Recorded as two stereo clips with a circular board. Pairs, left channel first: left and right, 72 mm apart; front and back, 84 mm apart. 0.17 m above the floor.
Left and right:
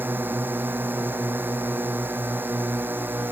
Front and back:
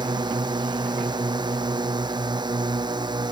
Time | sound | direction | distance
0.0 | a drone | 150° right | ?